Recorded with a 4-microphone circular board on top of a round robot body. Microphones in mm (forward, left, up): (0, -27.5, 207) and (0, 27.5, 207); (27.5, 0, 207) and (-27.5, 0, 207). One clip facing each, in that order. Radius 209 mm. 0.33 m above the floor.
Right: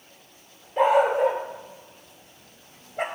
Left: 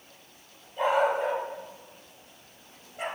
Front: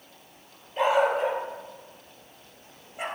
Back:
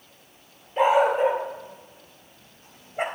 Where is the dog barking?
110° right, 3.5 m; by 3.0 s 130° right, 2.5 m.